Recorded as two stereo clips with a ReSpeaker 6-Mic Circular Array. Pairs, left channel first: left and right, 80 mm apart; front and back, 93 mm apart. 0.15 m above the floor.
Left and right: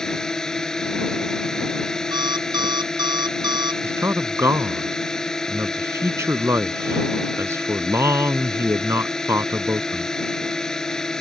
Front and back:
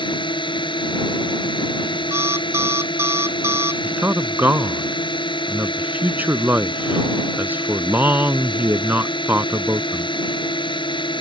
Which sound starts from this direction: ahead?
A drone, at 0.0 s.